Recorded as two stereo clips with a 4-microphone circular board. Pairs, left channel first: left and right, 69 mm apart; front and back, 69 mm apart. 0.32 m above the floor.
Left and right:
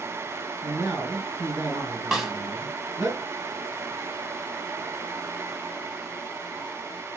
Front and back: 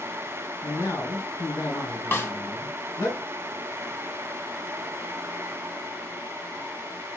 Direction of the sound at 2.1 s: 20° right.